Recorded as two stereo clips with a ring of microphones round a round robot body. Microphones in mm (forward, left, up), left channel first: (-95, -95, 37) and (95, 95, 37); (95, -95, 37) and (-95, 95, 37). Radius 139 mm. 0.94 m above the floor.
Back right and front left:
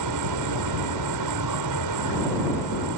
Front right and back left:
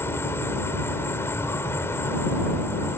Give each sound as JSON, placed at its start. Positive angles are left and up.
{"t": 0.0, "sound": "an insect", "azimuth_deg": 35}